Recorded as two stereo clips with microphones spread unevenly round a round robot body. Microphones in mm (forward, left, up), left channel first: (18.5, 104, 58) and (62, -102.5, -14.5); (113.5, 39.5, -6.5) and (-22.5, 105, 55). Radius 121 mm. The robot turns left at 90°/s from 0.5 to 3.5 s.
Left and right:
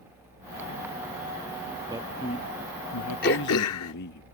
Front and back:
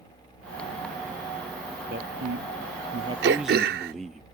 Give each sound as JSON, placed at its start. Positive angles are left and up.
{"t": 1.9, "sound": "a man speaking", "azimuth_deg": -150}
{"t": 3.2, "sound": "throat clearing", "azimuth_deg": 160}